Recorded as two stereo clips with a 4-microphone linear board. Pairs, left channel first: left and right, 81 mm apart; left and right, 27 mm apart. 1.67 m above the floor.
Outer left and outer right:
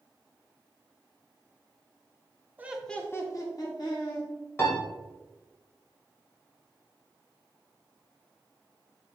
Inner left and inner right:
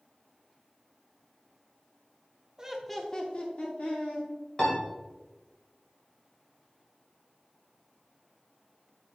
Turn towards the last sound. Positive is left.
turn(degrees=35)  # may be behind; listen again after turning